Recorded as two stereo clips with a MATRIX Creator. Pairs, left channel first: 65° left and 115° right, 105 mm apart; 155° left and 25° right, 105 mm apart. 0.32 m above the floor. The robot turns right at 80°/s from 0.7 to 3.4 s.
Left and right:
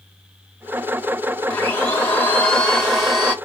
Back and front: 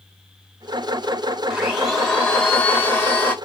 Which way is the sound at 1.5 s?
45° left.